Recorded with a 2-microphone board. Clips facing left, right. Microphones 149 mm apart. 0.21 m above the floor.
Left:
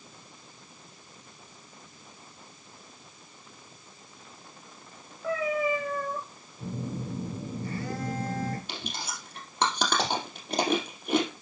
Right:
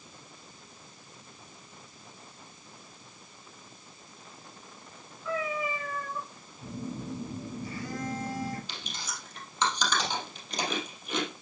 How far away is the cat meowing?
About 6 m.